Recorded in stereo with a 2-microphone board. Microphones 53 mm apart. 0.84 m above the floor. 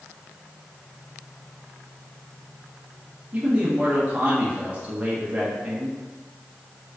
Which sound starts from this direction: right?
A man speaking, at 3.3 s.